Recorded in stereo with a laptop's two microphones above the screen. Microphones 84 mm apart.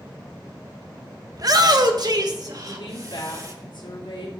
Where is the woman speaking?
75° left (ahead or behind), 3 m.